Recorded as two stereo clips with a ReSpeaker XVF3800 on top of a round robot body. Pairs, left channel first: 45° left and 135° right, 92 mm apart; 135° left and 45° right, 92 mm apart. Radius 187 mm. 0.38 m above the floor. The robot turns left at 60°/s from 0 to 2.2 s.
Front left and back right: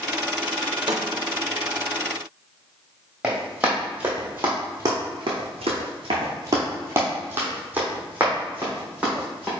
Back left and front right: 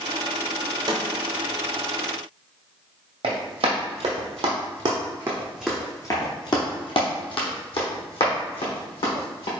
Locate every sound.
0.9 s a snare drum: 95° right, 0.7 m; by 1.0 s 100° right, 0.7 m
3.2 s running footsteps: 55° right, 1.4 m; by 9.5 s 145° left, 2 m